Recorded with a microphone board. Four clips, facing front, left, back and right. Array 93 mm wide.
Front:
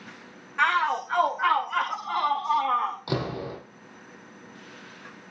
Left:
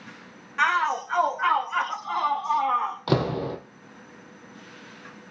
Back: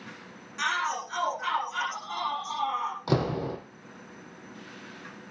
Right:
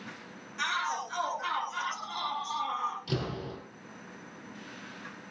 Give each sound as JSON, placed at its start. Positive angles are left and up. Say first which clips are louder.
{"t": 0.6, "sound": "a shout", "louder": "left 9 dB, front 6 dB", "azimuth_deg": 50, "distance_m": 5.5}
{"t": 3.1, "sound": "a door slam", "louder": "left 10 dB, back 3 dB", "azimuth_deg": 100, "distance_m": 2.5}